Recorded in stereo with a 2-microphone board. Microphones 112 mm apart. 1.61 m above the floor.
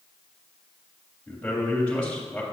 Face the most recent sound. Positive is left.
turn(degrees=10)  # may be behind; listen again after turning